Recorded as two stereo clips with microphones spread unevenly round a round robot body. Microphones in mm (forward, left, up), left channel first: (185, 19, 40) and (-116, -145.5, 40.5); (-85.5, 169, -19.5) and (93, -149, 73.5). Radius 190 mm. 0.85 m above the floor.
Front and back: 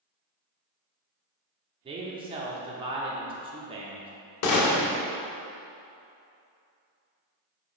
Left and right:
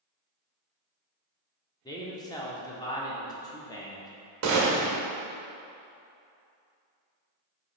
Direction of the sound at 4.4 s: 10° right.